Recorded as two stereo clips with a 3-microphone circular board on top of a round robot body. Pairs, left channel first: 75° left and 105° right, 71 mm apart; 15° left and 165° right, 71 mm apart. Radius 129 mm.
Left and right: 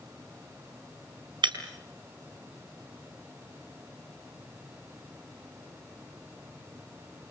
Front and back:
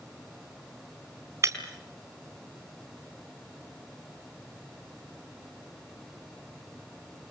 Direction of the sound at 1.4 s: 115° right.